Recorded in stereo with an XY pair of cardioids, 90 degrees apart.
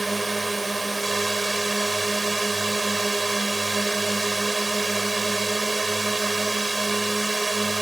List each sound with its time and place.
0.0 s a drone: 15° right